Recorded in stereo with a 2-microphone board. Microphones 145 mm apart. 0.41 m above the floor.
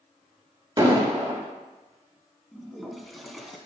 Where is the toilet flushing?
Centre (ahead or behind), 0.9 m.